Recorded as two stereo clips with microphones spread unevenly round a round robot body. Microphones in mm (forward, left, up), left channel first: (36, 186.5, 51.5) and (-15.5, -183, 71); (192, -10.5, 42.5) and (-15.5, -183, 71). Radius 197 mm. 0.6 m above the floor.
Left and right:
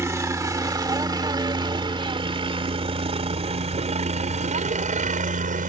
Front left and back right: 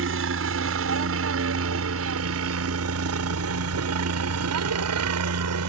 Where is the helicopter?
Straight behind; by 5.7 s 165° right.